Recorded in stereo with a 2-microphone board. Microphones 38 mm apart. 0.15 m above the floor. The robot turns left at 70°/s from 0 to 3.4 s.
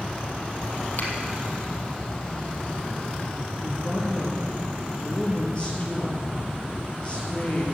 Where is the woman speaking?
25° left (ahead or behind), 3.5 m.